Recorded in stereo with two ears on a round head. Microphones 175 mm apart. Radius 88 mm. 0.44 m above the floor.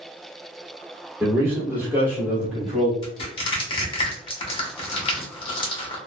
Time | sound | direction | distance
1.2 | a man speaking | 15° right (ahead or behind) | 1.1 m
3.0 | crushing | 25° left (ahead or behind) | 0.9 m